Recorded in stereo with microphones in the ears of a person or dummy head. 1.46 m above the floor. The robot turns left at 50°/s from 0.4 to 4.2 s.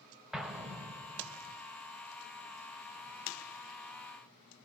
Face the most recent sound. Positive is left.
turn(degrees=170)